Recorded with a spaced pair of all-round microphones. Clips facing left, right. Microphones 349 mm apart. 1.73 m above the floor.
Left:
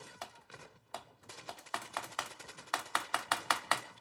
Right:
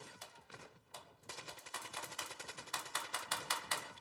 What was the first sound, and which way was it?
Typing on a keyboard, 75° left (ahead or behind).